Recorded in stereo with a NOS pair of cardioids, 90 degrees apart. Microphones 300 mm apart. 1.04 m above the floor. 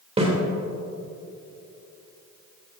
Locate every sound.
0.2 s a snare drum: 20° right, 3 m